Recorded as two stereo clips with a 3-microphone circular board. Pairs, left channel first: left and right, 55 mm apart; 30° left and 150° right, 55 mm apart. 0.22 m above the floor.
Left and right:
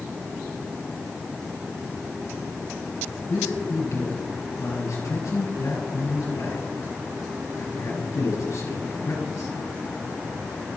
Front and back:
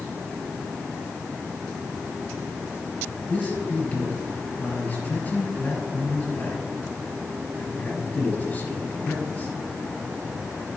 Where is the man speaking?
90° left, 4.5 m.